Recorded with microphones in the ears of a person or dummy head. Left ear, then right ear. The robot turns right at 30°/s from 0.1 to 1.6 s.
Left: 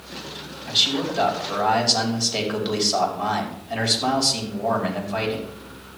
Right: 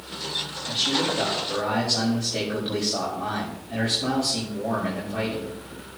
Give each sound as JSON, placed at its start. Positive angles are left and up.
{"t": 0.7, "sound": "a man speaking", "side_deg": 40, "distance_m": 5.5}